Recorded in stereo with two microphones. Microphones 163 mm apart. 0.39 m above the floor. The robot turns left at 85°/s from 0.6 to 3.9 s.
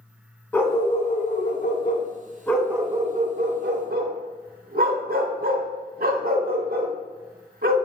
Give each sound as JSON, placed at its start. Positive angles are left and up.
{"t": 0.5, "sound": "a dog barking", "azimuth_deg": 165, "distance_m": 0.6}